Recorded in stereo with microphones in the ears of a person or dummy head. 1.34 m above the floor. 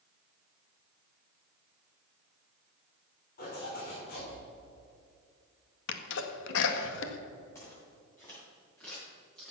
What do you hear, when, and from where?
3.4 s a zipper: 55° left (ahead or behind), 5 m
5.9 s a sneeze: 75° left (ahead or behind), 1.6 m
7.5 s footsteps: 15° left (ahead or behind), 5.5 m; by 9.5 s 5° left (ahead or behind), 6 m